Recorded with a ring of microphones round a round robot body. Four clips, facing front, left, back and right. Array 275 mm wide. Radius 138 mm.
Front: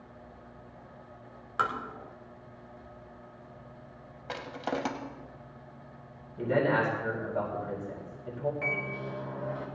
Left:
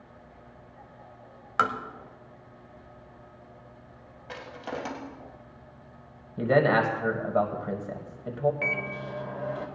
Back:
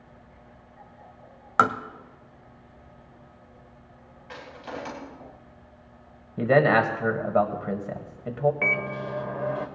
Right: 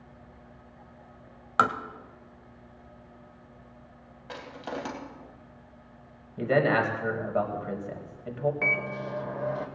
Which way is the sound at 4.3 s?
5° right.